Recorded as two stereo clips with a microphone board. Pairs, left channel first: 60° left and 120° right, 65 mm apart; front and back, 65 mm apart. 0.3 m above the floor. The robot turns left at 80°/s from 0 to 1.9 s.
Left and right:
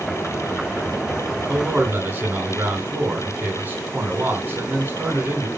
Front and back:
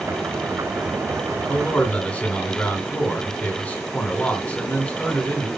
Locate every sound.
1.5 s a man speaking: 30° right, 2.5 m; by 5.5 s 65° right, 2.5 m